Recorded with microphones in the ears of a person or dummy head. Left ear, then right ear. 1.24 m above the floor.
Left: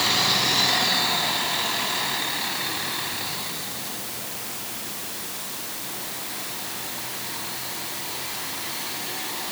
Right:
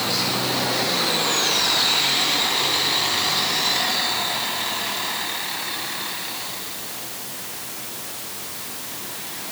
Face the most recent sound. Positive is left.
No sound to turn to.